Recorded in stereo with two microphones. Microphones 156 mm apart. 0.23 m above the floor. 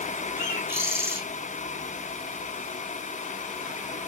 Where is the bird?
15° right (ahead or behind), 2.5 m.